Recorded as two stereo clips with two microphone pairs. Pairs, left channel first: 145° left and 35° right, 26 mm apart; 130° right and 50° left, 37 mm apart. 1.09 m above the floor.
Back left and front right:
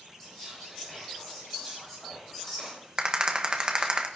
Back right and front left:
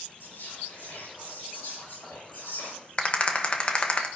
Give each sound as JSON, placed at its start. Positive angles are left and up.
{"t": 0.2, "sound": "whispering", "azimuth_deg": -145, "distance_m": 7.5}
{"t": 3.0, "sound": "a rattle", "azimuth_deg": -85, "distance_m": 1.1}